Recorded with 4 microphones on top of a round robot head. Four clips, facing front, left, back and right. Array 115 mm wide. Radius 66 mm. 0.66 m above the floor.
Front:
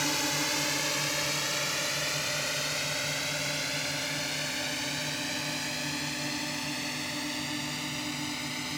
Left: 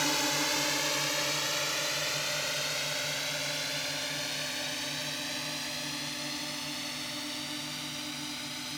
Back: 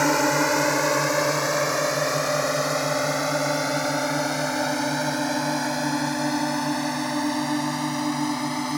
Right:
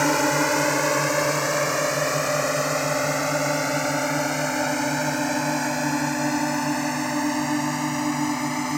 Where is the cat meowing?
I don't hear a cat meowing.